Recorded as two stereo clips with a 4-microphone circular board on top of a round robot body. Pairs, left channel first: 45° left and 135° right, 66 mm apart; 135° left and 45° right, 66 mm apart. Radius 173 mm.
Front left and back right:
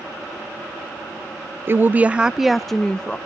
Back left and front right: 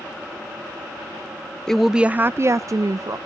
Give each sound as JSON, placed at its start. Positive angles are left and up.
{"t": 1.7, "sound": "a woman speaking", "azimuth_deg": -150, "distance_m": 0.5}